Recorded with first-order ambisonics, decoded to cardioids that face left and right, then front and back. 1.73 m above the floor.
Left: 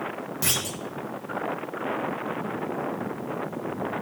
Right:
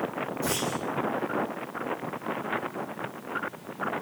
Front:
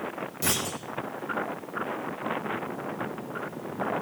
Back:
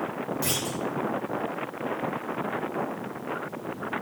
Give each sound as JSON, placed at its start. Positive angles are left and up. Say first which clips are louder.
{"t": 0.4, "sound": "a clunk", "louder": "left 3 dB, front 3 dB", "azimuth_deg": 80, "distance_m": 1.2}